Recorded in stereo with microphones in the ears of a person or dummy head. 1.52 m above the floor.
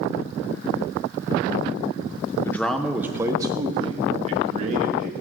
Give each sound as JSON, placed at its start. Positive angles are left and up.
{"t": 2.5, "sound": "a man speaking", "side_deg": 15, "distance_m": 1.1}